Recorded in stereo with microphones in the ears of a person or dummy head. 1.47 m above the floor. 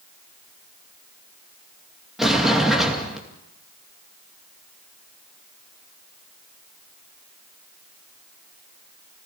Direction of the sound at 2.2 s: Centre (ahead or behind).